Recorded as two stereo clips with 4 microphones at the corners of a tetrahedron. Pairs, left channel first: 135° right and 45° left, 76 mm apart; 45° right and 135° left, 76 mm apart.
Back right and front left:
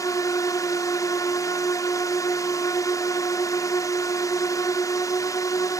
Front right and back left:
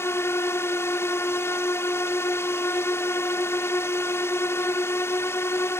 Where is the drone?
95° right.